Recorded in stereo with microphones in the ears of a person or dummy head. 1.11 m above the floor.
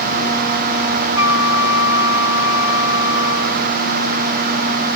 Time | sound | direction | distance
1.2 | a flute | 15° right (ahead or behind) | 3 m